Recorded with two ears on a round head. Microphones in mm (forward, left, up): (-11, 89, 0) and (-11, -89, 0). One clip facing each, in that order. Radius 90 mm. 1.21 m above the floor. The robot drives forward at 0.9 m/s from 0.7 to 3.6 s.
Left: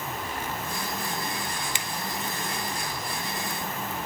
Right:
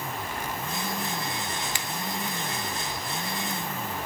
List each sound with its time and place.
1.8 s a finger snap: 20° left (ahead or behind), 0.6 m; by 1.9 s 15° left (ahead or behind), 0.7 m